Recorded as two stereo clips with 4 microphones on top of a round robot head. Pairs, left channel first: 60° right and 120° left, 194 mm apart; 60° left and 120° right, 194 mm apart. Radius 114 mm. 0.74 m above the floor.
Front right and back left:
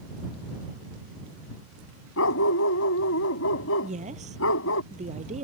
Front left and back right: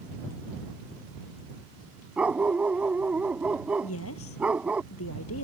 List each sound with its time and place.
2.2 s a dog barking: 35° right
3.8 s a woman speaking: 65° left